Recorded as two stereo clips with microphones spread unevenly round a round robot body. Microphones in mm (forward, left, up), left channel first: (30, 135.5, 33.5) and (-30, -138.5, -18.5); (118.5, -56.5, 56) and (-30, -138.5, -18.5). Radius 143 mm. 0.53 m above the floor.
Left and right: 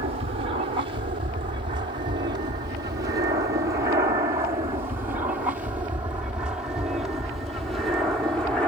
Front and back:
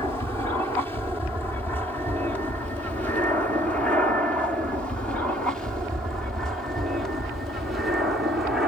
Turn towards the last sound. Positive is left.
turn(degrees=180)